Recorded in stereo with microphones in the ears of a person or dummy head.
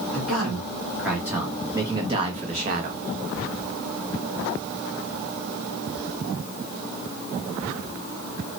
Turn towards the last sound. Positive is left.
turn(degrees=-60)  # may be behind; listen again after turning